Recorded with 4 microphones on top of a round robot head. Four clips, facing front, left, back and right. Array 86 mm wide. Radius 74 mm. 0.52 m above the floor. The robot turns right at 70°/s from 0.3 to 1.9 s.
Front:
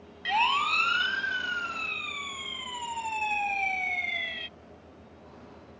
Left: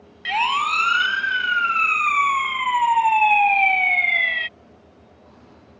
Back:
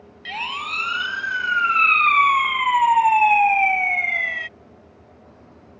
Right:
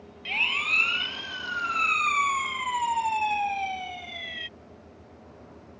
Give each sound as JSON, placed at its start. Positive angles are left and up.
{"t": 0.2, "sound": "a siren", "azimuth_deg": 65}